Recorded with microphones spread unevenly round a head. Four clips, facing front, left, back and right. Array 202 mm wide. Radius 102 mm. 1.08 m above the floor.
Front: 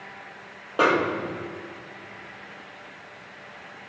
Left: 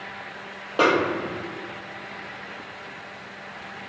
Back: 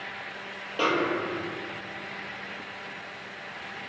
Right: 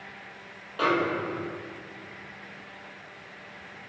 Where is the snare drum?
65° left, 1.7 m.